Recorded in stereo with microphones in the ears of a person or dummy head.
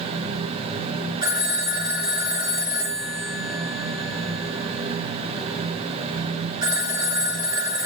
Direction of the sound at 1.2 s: 20° right (ahead or behind).